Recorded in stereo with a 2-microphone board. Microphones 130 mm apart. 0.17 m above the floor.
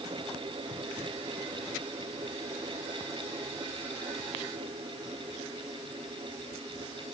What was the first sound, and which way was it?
Only background noise.